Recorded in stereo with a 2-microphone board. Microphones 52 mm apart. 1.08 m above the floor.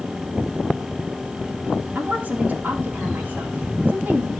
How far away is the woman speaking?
About 3 m.